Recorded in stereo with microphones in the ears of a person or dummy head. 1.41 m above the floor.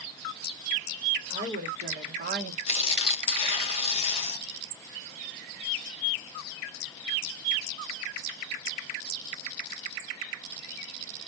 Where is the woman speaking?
25° right (ahead or behind), 1.5 m; by 2.6 s 55° right (ahead or behind), 0.9 m.